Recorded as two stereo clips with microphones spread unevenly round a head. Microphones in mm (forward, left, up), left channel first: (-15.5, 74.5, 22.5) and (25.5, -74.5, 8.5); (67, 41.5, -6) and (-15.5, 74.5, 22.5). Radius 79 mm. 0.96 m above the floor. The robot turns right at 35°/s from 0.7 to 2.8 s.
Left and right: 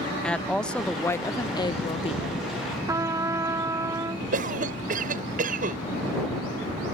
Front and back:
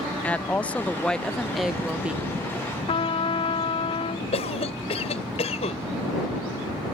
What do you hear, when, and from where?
0.2 s a woman speaking: 20° left; by 2.4 s 80° left
2.9 s a trumpet: 5° right
4.3 s a cough: 35° right